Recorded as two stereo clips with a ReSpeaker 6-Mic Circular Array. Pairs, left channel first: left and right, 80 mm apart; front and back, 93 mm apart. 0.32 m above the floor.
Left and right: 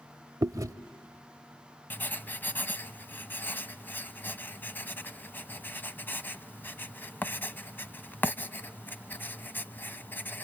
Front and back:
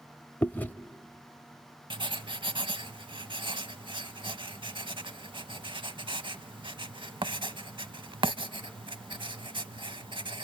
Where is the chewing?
65° right, 0.7 m.